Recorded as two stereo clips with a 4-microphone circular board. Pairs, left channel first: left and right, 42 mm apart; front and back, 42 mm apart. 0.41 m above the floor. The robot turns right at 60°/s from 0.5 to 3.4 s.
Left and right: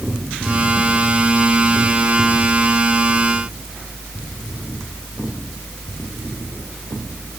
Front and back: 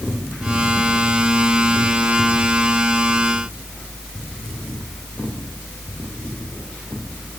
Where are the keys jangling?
No keys jangling in this recording.